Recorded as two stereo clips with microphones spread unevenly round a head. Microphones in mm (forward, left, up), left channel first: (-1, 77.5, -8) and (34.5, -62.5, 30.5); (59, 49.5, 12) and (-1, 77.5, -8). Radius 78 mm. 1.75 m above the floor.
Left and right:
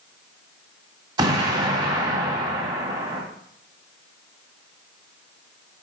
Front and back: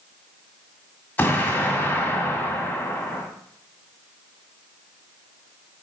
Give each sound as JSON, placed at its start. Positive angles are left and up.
{"t": 1.2, "sound": "an explosion", "azimuth_deg": -55, "distance_m": 2.0}